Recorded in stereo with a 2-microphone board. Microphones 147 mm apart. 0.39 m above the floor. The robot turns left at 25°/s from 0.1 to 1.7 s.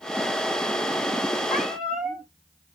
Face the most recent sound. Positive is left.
turn(degrees=0)  # may be behind; listen again after turning